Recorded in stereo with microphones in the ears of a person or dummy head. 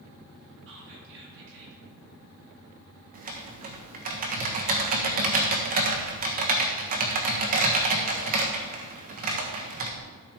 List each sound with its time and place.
0.7 s whispering: 65° right (ahead or behind), 2.5 m
3.1 s typing on a keyboard: 50° right (ahead or behind), 1.2 m